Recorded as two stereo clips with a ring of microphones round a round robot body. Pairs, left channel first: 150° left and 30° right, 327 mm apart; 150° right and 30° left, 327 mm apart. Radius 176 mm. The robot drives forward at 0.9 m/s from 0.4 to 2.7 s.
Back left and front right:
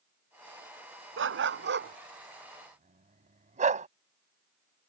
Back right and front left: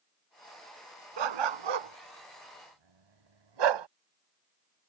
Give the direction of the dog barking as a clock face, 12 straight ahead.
11 o'clock.